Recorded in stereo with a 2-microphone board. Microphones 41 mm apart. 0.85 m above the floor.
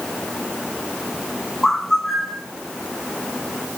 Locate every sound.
1.6 s a bird: 5° left (ahead or behind), 1.2 m